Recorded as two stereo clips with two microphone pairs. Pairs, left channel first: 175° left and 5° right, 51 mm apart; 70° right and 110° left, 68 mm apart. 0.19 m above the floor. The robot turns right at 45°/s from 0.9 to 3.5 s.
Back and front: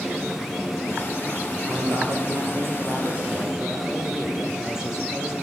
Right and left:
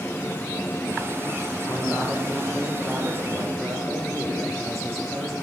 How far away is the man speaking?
About 6.5 m.